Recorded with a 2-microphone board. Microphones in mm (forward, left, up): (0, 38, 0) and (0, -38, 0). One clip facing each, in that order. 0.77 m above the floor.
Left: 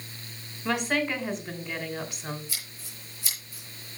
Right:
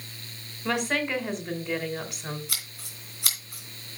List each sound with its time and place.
0.7 s a woman speaking: 5° right (ahead or behind), 3 m
2.5 s scissors: 70° right (ahead or behind), 2.5 m